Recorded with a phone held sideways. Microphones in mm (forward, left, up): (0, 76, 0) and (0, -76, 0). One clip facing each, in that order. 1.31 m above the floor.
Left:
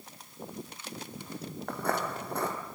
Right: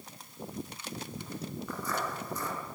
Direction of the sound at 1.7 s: 65° left (ahead or behind).